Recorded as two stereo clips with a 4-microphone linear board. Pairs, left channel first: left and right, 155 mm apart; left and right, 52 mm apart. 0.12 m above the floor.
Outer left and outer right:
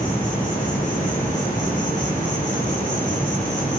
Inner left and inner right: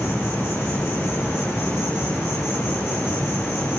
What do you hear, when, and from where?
0.0 s an insect: 55° left (ahead or behind), 10 m